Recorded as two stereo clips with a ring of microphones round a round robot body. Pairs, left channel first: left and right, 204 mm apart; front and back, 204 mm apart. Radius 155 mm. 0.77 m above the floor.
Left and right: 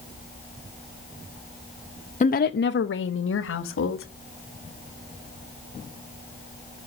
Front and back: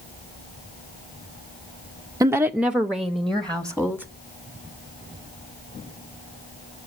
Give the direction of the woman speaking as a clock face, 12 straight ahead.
8 o'clock.